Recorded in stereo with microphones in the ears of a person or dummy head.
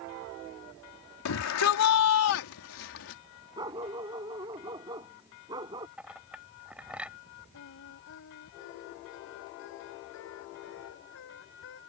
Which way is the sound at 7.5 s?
65° left (ahead or behind).